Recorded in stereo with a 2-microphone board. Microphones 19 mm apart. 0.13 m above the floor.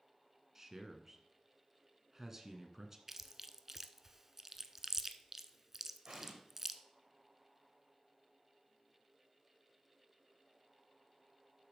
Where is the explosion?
65° right (ahead or behind), 3.5 m.